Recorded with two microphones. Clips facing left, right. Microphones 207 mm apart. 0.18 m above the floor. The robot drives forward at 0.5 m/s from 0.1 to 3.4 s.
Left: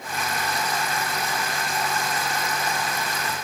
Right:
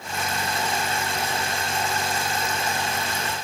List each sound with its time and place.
Only background noise.